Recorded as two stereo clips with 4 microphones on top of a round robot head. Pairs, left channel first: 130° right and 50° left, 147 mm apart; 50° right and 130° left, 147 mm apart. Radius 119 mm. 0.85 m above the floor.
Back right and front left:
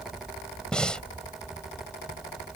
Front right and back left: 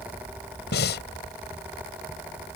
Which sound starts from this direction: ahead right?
Breathing, at 0.7 s.